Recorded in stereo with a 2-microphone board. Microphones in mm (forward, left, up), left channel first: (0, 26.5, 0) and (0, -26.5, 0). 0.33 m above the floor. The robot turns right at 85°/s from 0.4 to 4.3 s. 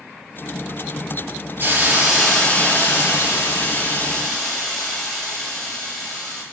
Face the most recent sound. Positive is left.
turn(degrees=175)